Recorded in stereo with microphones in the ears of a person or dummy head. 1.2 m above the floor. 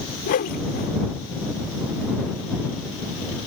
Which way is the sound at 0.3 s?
50° left (ahead or behind).